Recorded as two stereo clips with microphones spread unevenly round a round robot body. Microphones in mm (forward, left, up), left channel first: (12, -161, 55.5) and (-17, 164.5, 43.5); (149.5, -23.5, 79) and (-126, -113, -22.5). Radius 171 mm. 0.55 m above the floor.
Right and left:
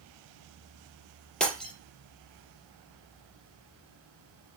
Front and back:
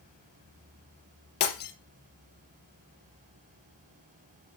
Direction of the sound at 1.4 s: Straight ahead.